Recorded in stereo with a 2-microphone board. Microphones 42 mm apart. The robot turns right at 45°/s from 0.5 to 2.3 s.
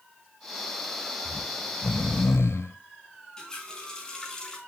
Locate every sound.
1.2 s snoring: 50° left, 1.0 m; by 2.8 s 100° left, 1.0 m
3.4 s a running tap: 15° left (ahead or behind), 4 m